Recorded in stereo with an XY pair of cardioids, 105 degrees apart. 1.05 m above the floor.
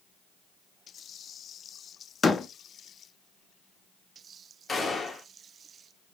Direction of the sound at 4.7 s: 25° left.